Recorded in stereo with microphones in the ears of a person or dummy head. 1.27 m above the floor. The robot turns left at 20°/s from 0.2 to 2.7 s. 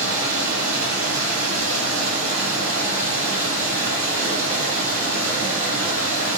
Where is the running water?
70° right, 1.4 m; by 6.4 s 120° right, 1.4 m.